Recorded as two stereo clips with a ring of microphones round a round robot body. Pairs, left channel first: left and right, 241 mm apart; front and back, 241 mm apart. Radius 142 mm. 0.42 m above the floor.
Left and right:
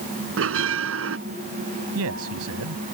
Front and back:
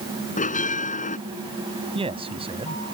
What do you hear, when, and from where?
0.4 s a bell: 60° right
1.9 s a man speaking: 115° right